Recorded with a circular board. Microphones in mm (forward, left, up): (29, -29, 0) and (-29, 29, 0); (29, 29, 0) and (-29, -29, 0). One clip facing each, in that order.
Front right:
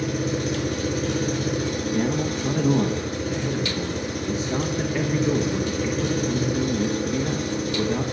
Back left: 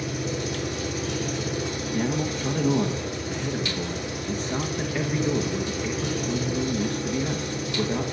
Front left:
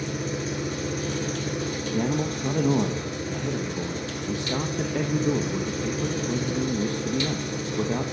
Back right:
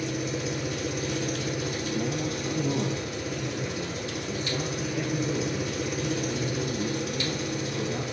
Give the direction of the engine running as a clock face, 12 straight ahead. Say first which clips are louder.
Front right 4 dB, front left 1 dB; 12 o'clock.